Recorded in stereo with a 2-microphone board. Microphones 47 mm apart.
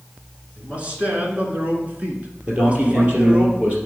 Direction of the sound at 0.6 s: 25° right (ahead or behind).